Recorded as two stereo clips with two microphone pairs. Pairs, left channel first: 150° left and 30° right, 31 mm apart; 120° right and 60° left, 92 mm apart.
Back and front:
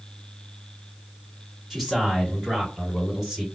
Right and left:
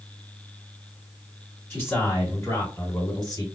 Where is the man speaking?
95° right, 1.7 m; by 3.5 s 105° right, 2.5 m.